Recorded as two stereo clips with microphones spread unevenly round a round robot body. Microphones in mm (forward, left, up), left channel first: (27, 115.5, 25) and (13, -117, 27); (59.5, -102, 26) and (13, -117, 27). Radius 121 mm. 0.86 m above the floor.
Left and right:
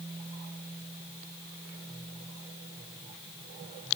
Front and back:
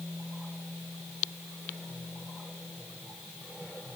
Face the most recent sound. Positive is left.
No sound to turn to.